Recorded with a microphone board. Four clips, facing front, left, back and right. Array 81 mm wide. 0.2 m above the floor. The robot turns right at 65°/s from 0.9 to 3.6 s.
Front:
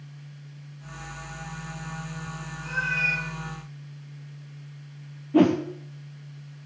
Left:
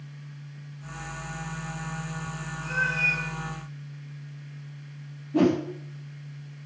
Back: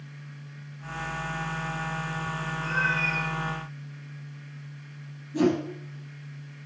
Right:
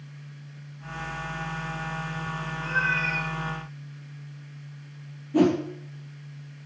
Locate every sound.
2.6 s a cat meowing: 125° right, 8 m; by 3.2 s 80° right, 8 m
5.3 s a whoosh: 10° right, 3.5 m